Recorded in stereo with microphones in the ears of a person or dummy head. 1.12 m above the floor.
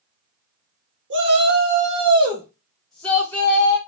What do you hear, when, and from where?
1.1 s a shout: 60° right (ahead or behind), 1.0 m; by 3.8 s 20° left (ahead or behind), 1.2 m